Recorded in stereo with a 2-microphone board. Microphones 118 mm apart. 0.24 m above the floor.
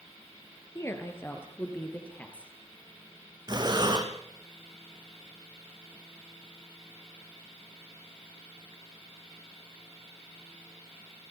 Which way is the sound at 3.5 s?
35° right (ahead or behind).